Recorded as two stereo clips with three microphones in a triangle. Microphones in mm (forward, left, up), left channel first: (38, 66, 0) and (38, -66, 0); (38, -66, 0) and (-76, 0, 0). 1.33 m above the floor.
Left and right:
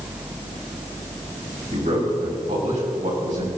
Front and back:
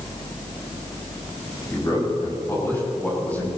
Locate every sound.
1.7 s a man speaking: 95° right, 5.5 m; by 3.5 s 105° right, 7.5 m